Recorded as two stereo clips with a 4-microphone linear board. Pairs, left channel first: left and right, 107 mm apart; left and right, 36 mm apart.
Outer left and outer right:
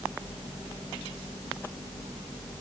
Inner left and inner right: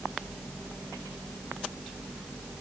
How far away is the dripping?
I don't hear dripping.